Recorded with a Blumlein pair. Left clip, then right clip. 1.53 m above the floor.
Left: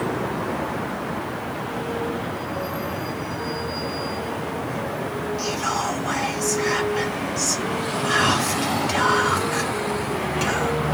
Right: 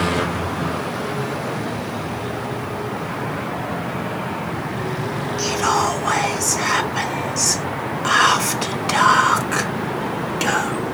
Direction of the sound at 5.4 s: 70° right.